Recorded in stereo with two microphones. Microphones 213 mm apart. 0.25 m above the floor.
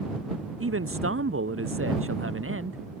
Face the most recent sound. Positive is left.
turn(degrees=-80)